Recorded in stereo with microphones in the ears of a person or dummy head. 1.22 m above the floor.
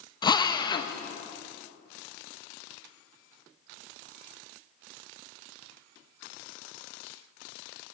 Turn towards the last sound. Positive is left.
turn(degrees=25)  # may be behind; listen again after turning